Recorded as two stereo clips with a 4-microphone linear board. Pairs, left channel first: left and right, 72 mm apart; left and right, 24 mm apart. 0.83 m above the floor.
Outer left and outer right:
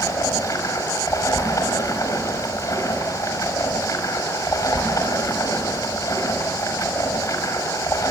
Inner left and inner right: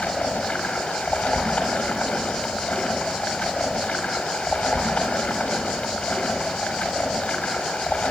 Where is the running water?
50° left (ahead or behind), 5 m.